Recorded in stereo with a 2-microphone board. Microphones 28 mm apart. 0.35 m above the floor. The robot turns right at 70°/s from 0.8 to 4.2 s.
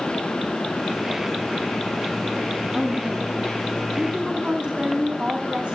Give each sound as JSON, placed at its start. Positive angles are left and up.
{"t": 2.7, "sound": "a woman speaking", "azimuth_deg": -145, "distance_m": 3.0}